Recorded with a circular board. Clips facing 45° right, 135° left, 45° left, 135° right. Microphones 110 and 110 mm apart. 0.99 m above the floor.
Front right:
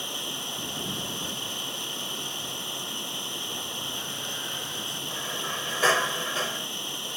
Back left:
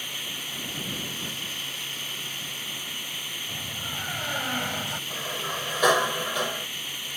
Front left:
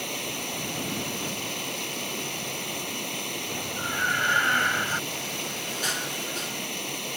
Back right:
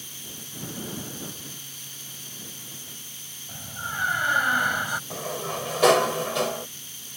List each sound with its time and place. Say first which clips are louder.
0.0 s running water: front right 4 dB, front left 12 dB; 20° left
3.5 s a door slam: front right 1 dB, front left 1 dB; 150° left
5.1 s a sliding door: front right 1 dB, back right 4 dB; 150° right